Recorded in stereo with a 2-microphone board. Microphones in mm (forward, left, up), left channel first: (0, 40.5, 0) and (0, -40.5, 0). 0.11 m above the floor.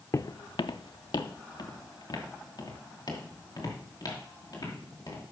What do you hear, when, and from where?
0.1 s footsteps: 40° left (ahead or behind), 0.5 m; by 5.2 s 45° left (ahead or behind), 6 m